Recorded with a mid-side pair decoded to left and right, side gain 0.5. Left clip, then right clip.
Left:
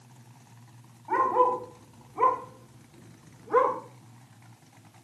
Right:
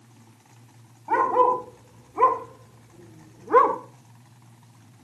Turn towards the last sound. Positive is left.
turn(degrees=-55)